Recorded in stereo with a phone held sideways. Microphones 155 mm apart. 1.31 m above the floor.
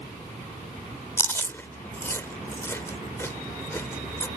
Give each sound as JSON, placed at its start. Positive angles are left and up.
{"t": 1.2, "sound": "chewing", "side_deg": 15}